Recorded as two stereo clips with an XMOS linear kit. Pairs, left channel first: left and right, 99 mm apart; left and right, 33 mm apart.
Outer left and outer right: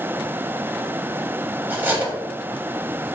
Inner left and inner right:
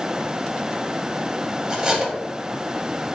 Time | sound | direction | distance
1.7 | cutlery clinking | 20° right (ahead or behind) | 0.6 m